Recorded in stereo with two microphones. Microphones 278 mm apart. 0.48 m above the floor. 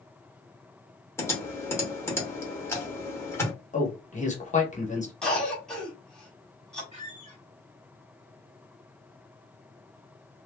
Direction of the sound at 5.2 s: 5° left (ahead or behind).